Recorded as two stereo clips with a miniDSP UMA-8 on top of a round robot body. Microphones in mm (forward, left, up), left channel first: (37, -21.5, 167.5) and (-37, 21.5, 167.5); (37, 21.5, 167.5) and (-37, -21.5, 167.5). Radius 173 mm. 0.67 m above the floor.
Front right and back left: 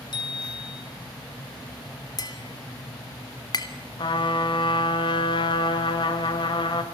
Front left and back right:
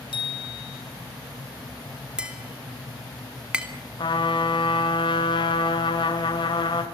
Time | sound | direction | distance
0.1 | a bicycle bell | 5° left | 6.5 m
2.2 | tapping | 70° right | 3 m
4.0 | a trumpet | straight ahead | 2.5 m